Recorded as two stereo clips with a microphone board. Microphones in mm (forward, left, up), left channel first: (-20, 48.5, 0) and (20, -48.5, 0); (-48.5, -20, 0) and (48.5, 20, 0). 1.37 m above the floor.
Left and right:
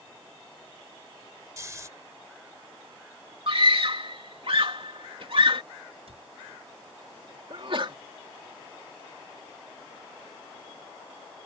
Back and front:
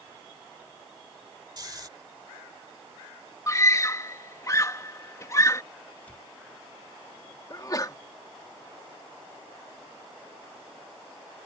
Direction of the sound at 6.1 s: 80° right.